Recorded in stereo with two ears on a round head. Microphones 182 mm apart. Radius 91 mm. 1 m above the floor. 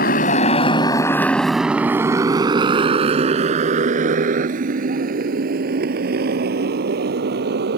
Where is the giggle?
No giggle in this recording.